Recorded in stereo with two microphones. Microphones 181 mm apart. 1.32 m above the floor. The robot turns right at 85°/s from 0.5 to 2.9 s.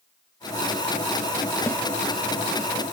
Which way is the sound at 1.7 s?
15° left (ahead or behind).